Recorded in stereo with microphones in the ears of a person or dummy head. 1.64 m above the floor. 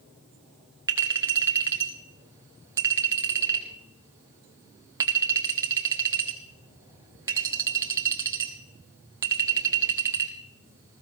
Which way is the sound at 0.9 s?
20° right (ahead or behind).